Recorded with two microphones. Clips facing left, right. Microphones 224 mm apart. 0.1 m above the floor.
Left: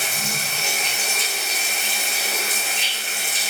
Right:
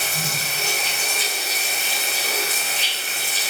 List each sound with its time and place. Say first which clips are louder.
0.0 s running water: even; 55° right (ahead or behind), 4 m